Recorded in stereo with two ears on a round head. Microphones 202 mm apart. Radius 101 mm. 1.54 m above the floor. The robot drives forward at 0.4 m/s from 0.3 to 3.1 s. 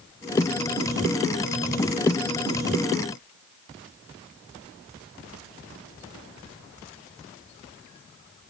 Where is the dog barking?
No dog barking in this recording.